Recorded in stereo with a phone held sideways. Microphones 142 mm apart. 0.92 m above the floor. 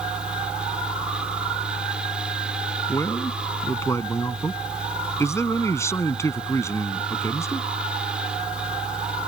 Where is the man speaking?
20° left (ahead or behind).